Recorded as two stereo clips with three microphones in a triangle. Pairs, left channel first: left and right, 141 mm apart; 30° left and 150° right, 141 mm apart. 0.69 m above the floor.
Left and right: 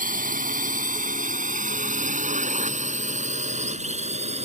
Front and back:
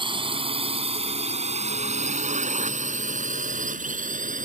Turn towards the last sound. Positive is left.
turn(degrees=-130)